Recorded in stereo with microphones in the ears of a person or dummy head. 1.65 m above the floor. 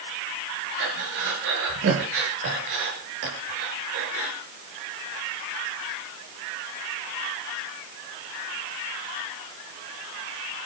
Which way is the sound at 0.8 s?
65° right (ahead or behind).